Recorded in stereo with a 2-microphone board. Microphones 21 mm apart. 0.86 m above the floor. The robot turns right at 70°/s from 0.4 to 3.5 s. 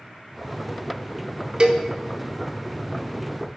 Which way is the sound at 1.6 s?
35° right (ahead or behind).